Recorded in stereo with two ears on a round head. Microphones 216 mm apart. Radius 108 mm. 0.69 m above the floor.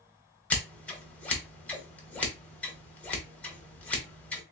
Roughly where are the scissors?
Centre.